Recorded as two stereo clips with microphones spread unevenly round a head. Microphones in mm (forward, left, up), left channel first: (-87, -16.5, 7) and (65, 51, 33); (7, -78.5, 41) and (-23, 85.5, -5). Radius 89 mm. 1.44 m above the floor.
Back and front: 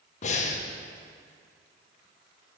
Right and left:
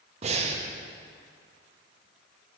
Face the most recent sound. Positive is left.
turn(degrees=155)